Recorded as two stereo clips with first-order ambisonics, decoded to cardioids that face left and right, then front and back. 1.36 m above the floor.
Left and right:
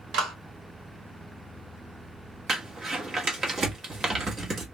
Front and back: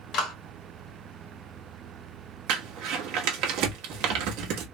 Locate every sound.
0.1 s a clap: 50° right, 2 m
2.5 s crumpling: 160° right, 1.2 m